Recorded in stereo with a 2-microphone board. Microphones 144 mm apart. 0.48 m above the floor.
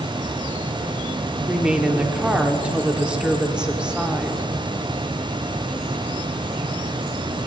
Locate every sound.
1.5 s a woman speaking: 5° right (ahead or behind), 0.7 m